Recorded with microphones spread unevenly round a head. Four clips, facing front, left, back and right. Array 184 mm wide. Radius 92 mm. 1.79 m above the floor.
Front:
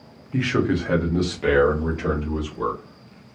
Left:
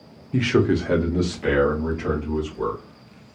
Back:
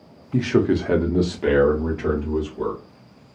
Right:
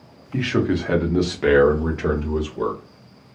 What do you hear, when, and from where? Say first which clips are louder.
0.3 s a man speaking: left 2 dB, back 3 dB; 145° left, 0.6 m; by 2.8 s 80° right, 1.2 m